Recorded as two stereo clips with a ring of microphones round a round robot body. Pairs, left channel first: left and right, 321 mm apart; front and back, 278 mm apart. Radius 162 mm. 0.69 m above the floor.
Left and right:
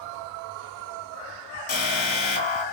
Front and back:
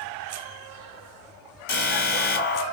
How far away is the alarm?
About 2 m.